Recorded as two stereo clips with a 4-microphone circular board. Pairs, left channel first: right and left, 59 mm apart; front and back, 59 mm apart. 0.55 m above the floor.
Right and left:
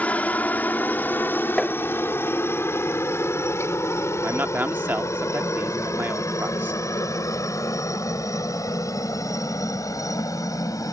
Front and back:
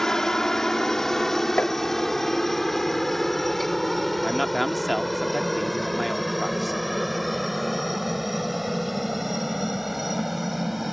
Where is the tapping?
25° right.